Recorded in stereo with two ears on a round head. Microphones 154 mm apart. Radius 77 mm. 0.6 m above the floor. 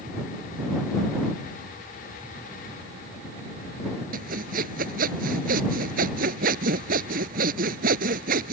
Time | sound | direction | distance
4.1 | sawing | 55° right (ahead or behind) | ?